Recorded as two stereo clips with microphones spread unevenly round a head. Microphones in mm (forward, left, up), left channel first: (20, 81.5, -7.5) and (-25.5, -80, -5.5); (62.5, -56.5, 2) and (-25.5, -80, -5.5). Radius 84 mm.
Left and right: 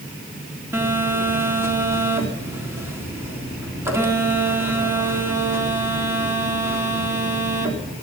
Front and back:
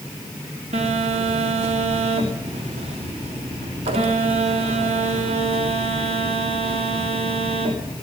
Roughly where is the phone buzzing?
Behind.